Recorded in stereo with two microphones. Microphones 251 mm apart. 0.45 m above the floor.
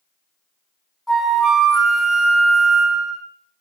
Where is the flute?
Centre (ahead or behind), 1.6 m.